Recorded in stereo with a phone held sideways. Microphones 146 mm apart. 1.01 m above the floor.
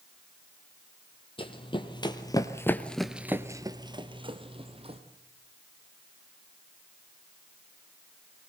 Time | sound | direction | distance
1.4 | running footsteps | 35° left (ahead or behind) | 2 m